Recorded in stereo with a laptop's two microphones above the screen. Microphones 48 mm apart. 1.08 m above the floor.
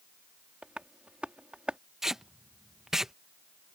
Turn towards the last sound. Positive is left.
turn(degrees=-10)  # may be behind; listen again after turning